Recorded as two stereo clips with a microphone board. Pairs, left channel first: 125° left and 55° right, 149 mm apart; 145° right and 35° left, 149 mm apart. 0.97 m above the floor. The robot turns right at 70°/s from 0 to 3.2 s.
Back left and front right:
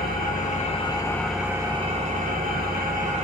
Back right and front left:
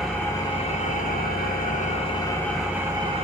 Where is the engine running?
120° left, 0.8 m; by 3.2 s 15° right, 0.8 m.